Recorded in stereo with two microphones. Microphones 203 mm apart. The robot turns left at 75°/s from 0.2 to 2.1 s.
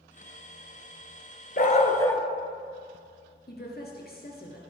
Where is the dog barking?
55° left, 0.8 m; by 2.2 s 15° left, 0.8 m.